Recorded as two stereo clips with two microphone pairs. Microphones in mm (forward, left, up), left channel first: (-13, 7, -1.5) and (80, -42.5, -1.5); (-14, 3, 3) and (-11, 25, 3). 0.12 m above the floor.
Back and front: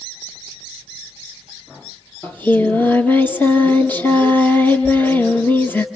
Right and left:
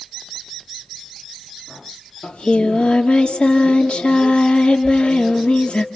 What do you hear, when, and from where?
2.2 s singing: 135° right, 3 m